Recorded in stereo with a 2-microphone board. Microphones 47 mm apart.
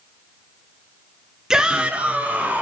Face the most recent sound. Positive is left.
turn(degrees=-30)  # may be behind; listen again after turning